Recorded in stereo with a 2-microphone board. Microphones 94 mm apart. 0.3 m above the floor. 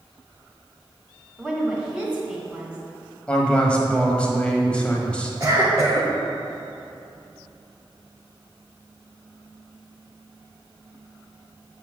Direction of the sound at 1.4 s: 10° right (ahead or behind).